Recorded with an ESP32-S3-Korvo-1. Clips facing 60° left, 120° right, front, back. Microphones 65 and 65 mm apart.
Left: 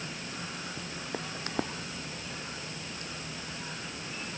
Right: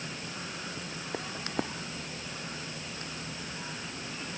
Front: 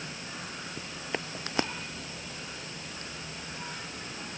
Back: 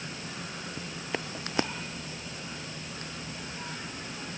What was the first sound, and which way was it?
Only background noise.